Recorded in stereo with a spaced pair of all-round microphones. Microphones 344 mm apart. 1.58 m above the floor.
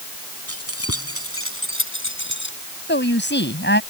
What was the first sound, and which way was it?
Keys jangling, 45° left (ahead or behind).